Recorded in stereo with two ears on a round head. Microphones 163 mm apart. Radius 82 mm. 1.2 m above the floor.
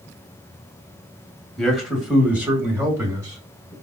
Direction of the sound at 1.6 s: Centre (ahead or behind).